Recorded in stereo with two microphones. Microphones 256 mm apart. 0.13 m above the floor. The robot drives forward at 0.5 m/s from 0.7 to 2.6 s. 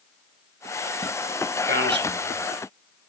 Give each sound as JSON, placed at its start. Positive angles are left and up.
{"t": 1.7, "sound": "a man speaking", "side_deg": -40, "distance_m": 2.0}